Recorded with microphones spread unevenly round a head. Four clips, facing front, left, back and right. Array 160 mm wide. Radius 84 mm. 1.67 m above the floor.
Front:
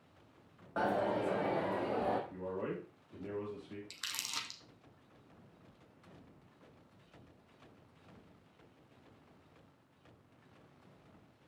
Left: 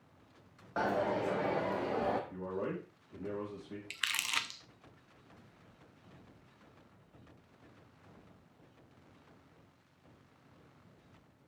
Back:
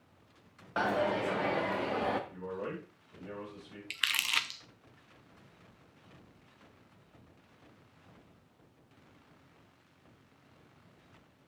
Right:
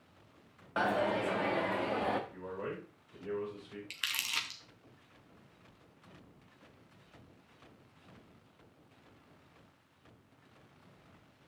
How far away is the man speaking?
About 3.5 m.